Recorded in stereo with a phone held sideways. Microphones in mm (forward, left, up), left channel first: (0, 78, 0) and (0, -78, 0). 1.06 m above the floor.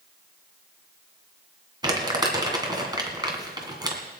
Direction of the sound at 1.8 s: 25° right (ahead or behind).